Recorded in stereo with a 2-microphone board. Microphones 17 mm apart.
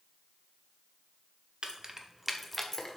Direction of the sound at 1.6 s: 55° right (ahead or behind).